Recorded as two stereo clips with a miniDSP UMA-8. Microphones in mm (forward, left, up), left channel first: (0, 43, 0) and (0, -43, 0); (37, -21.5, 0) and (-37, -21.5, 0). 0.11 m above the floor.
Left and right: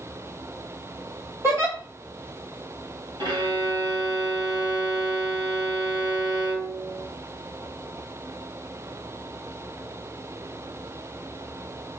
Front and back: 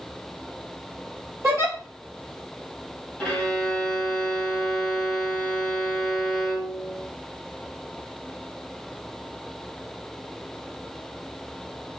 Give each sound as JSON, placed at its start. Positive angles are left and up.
{"t": 1.4, "sound": "a giggle", "azimuth_deg": -140, "distance_m": 2.0}
{"t": 3.2, "sound": "a violin", "azimuth_deg": -80, "distance_m": 1.8}